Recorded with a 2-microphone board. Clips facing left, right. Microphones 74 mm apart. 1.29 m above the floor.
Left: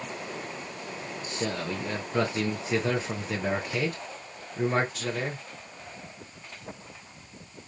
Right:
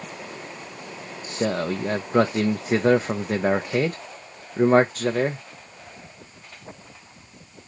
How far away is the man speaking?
About 0.5 m.